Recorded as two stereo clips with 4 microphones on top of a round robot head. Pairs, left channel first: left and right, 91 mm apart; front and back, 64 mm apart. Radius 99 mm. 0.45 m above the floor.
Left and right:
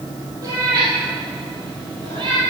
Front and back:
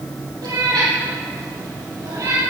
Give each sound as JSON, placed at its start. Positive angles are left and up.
{"t": 0.4, "sound": "a cat meowing", "azimuth_deg": -150, "distance_m": 3.5}